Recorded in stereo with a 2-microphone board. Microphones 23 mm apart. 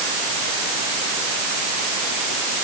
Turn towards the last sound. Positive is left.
No sound to turn to.